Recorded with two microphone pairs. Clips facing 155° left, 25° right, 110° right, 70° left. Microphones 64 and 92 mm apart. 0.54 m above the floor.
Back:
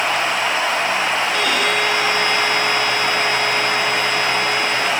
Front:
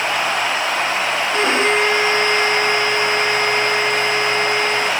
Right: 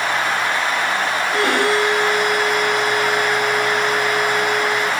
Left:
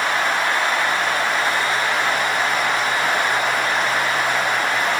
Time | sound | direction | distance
1.3 | a violin | 85° right | ?